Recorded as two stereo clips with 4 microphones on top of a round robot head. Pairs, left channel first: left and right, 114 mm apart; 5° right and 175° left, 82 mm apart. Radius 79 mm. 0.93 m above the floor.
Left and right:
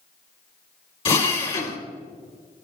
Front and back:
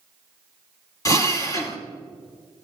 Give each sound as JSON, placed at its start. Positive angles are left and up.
{"t": 1.1, "sound": "a drill", "azimuth_deg": 40, "distance_m": 2.5}